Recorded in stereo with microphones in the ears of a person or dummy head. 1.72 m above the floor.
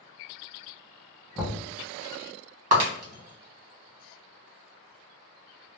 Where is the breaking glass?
40° right (ahead or behind), 1.2 m.